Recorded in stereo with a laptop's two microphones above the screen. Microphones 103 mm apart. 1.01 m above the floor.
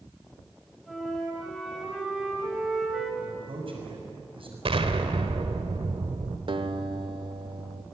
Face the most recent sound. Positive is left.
turn(degrees=-55)  # may be behind; listen again after turning